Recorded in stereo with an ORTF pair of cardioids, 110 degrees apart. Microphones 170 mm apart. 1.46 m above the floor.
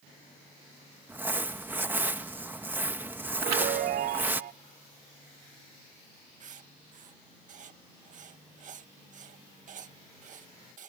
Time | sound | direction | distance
1.1 | crumpling | 10° right | ?
3.4 | a chime | 70° right | ?
6.4 | writing | 50° right | ?